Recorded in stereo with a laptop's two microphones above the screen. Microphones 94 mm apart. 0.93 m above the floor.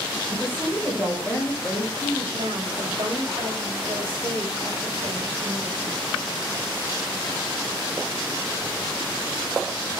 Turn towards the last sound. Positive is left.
turn(degrees=-65)  # may be behind; listen again after turning